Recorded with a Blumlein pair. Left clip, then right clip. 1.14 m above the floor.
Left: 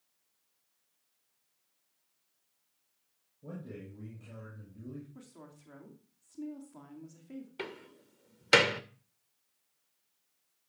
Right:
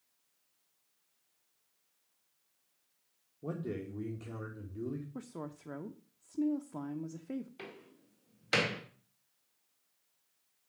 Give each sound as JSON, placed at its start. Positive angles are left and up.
{"t": 3.4, "sound": "a man speaking", "azimuth_deg": -60, "distance_m": 1.7}
{"t": 5.2, "sound": "a woman speaking", "azimuth_deg": -35, "distance_m": 0.9}
{"t": 7.6, "sound": "a door slam", "azimuth_deg": 65, "distance_m": 0.9}